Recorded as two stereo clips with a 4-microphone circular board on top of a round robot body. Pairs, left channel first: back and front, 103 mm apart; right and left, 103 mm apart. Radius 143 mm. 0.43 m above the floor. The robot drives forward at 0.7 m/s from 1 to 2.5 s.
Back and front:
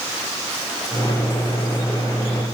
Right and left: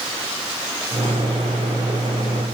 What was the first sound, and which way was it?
Only background noise.